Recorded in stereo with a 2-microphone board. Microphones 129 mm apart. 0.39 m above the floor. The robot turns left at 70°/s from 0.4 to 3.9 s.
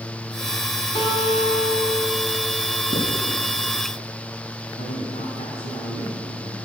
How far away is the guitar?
About 1.9 m.